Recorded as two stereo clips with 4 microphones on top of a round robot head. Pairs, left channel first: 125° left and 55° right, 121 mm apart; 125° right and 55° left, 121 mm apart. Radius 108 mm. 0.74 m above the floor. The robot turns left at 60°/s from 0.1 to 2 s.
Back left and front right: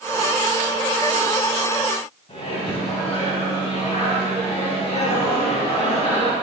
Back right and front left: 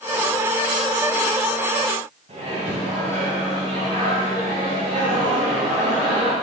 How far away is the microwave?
About 4 m.